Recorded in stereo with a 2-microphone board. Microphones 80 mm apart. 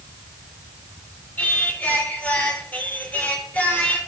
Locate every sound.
1.4 s singing: 20° left (ahead or behind), 1.3 m